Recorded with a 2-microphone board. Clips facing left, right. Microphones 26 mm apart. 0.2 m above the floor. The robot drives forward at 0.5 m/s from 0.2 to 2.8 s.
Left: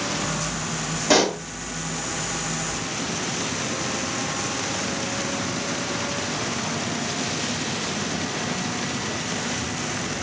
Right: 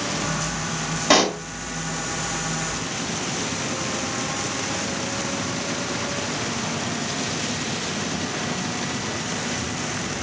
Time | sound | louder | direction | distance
1.1 | a pop | right 1 dB | 30° right (ahead or behind) | 1.9 m